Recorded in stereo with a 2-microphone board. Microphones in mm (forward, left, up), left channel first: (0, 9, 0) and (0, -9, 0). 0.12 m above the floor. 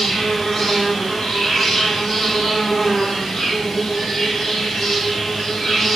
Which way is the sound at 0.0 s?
45° left (ahead or behind).